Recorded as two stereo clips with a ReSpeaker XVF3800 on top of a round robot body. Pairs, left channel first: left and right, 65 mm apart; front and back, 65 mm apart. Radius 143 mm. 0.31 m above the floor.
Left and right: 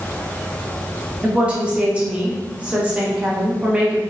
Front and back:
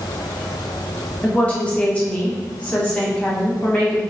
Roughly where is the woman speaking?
Ahead right.